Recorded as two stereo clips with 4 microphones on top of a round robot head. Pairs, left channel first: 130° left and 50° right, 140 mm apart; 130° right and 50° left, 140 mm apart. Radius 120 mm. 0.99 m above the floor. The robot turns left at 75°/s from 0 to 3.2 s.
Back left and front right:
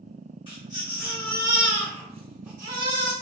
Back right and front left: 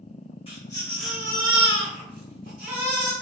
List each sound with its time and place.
0.5 s a baby crying: 175° right, 1.3 m; by 3.1 s 15° right, 1.3 m